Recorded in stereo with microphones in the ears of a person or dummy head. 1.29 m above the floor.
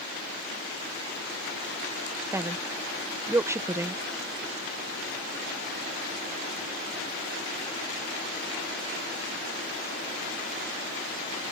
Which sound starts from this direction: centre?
A woman speaking, at 2.3 s.